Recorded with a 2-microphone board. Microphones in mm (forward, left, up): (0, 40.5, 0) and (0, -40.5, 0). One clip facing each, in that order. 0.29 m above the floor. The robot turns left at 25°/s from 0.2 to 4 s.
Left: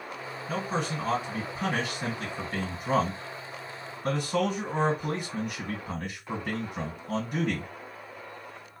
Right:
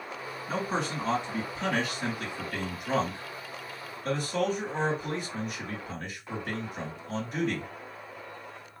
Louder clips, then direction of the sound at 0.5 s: Even; 165° right.